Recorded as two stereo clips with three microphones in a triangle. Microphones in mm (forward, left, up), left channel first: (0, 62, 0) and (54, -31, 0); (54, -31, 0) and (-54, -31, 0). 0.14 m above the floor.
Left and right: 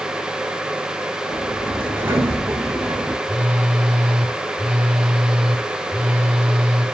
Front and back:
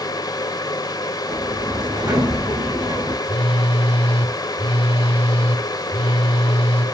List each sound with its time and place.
1.3 s a sliding door: 130° right, 9 m
3.2 s a phone buzzing: 20° left, 3.5 m